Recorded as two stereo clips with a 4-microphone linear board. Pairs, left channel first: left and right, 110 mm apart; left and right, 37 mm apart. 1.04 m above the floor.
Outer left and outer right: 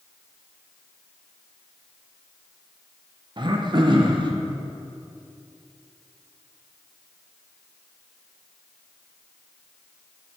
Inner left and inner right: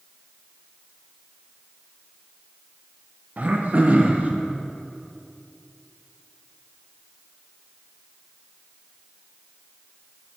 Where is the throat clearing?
45° right (ahead or behind), 0.7 m.